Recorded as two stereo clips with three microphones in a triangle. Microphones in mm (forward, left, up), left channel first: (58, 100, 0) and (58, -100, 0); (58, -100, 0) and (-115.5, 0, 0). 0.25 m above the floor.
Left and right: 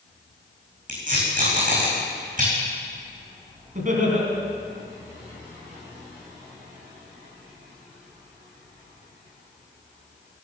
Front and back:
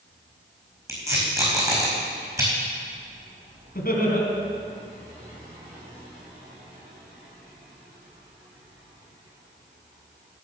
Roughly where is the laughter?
Ahead right.